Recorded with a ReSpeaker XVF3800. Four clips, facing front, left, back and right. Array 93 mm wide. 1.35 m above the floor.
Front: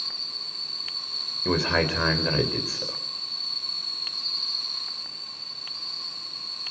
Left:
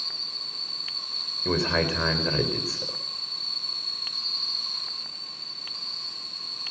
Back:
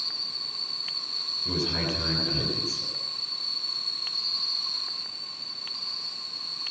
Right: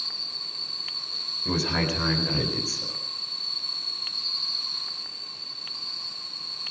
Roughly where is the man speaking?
Ahead left.